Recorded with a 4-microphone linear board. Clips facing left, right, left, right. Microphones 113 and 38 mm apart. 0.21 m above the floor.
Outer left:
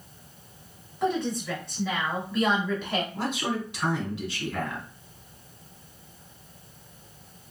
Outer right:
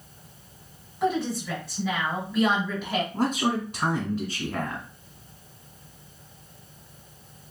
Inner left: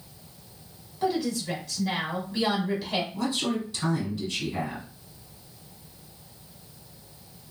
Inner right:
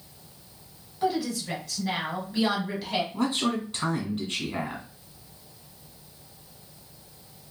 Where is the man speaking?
45° right (ahead or behind), 1.5 m.